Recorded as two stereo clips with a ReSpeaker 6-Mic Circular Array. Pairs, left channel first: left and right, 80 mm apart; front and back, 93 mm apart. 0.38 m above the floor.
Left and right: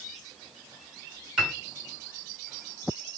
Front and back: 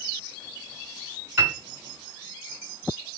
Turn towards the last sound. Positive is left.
turn(degrees=-155)